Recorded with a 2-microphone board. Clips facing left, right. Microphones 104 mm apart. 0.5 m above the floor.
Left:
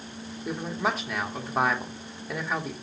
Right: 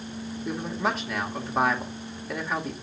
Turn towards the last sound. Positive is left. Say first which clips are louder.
# even
turn(degrees=0)  # may be behind; listen again after turning